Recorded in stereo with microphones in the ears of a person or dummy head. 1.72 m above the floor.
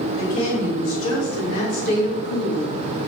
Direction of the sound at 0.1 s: 45° left (ahead or behind).